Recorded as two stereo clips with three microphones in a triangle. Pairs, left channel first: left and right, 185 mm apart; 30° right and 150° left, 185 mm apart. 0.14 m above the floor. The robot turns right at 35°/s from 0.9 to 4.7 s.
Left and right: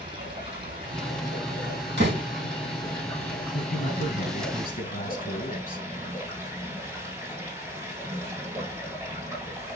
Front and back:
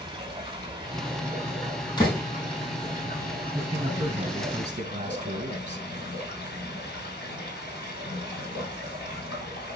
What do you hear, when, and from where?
0.0 s running water: 145° right, 5.5 m; by 9.8 s 10° right, 5.5 m
2.0 s a door slam: 95° right, 3.5 m; by 2.2 s 85° right, 3.5 m
3.5 s a man speaking: 75° left, 2.5 m; by 5.9 s 115° left, 2.5 m